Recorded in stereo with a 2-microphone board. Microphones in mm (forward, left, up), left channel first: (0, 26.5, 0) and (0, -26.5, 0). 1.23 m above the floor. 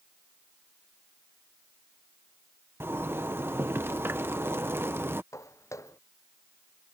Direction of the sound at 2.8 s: 45° right (ahead or behind).